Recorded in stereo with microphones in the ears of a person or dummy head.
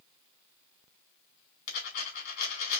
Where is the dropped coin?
60° left (ahead or behind), 2.5 m.